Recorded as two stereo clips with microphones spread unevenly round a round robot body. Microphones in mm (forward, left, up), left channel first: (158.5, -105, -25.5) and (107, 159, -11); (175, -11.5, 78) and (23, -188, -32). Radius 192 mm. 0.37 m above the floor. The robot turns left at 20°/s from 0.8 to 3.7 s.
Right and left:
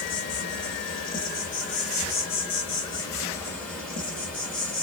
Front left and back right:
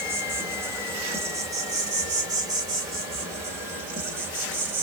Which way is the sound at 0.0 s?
100° right.